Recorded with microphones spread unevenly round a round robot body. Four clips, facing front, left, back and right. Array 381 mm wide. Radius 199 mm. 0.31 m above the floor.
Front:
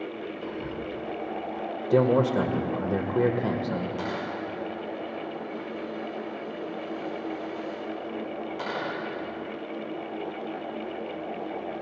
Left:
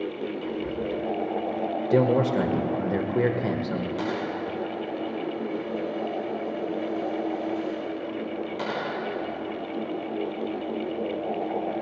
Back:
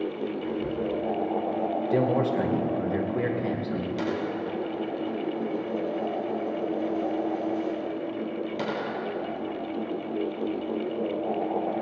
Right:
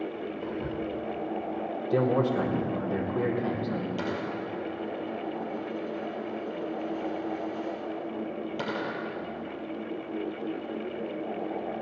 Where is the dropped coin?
140° right, 3 m.